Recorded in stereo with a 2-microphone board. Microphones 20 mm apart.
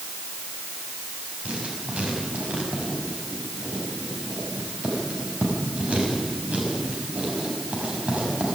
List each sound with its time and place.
1.4 s writing: 85° right, 5.5 m